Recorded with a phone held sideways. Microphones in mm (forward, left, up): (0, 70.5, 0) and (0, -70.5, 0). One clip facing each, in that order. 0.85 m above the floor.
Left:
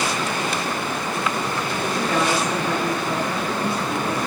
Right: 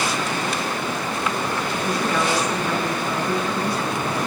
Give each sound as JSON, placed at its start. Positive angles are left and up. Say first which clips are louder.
{"t": 1.8, "sound": "a woman speaking", "louder": "left 1 dB", "side_deg": 25, "distance_m": 7.0}